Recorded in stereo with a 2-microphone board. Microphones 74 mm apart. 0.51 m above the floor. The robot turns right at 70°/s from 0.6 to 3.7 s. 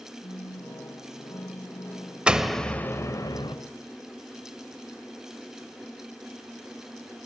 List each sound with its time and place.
0.2 s a phone buzzing: 70° left, 4.5 m; by 2.2 s straight behind, 4.5 m
2.3 s a door slam: 15° right, 1.2 m; by 3.5 s 75° left, 1.2 m